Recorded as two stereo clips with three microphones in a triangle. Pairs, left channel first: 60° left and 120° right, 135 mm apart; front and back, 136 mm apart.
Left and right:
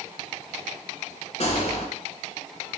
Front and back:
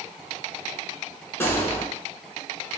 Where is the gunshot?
70° left, 0.9 m.